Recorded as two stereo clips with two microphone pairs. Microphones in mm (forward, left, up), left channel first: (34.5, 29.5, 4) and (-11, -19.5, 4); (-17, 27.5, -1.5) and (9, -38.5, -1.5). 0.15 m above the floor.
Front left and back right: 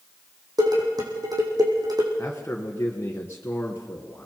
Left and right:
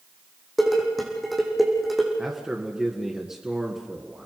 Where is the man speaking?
10° left, 2 m.